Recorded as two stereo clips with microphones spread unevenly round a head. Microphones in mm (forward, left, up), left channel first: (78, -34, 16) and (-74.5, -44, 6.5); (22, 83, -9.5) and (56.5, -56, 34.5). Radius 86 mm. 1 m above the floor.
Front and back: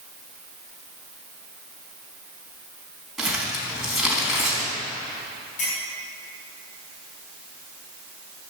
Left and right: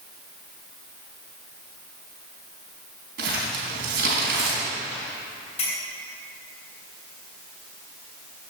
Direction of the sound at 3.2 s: 90° right.